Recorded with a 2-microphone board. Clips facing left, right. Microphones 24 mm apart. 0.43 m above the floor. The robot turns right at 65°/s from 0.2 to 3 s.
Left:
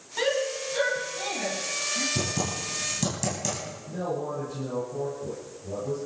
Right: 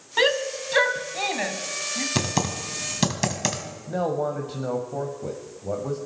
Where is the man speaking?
65° right (ahead or behind), 2 m.